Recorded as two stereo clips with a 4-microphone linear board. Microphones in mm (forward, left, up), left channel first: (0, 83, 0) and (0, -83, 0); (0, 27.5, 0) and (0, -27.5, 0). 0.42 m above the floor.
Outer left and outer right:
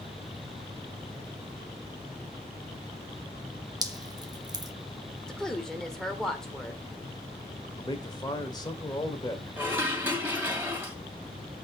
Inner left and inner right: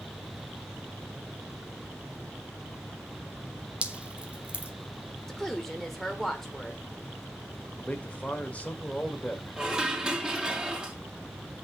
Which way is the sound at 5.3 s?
5° left (ahead or behind).